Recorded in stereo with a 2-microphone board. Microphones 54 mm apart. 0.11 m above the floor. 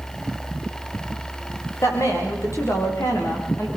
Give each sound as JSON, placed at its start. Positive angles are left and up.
{"t": 1.8, "sound": "a woman speaking", "side_deg": 60, "distance_m": 9.0}